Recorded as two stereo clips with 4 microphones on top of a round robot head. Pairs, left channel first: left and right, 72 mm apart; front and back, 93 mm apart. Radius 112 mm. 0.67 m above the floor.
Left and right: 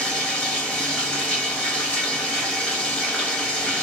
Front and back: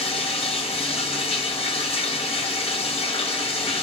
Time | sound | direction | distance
0.0 | running water | 10° left | 1.5 m